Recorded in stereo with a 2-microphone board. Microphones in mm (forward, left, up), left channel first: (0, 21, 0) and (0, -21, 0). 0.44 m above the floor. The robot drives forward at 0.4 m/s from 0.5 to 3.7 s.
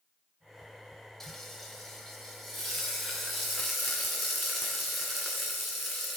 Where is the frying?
10° left (ahead or behind), 1.1 m; by 6.2 s 5° left (ahead or behind), 2 m.